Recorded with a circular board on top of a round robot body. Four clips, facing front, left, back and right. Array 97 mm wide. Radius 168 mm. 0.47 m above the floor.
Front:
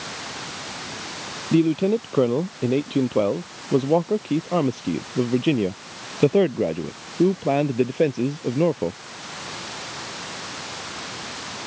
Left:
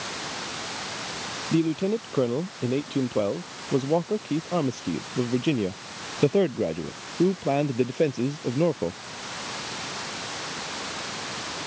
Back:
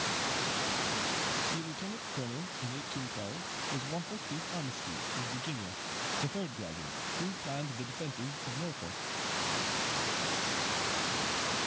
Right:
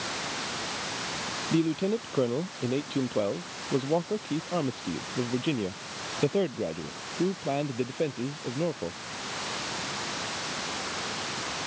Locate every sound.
1.5 s a man speaking: 5° left; by 9.0 s 25° left